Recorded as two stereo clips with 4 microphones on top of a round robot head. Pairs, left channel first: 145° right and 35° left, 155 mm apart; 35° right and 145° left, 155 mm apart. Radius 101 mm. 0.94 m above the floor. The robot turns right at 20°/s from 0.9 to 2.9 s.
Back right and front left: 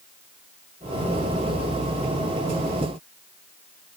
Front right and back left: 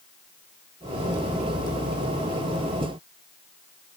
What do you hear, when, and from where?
Only background noise.